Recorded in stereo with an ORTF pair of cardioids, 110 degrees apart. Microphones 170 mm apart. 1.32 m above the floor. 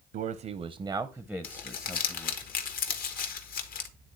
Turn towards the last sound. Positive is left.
turn(degrees=60)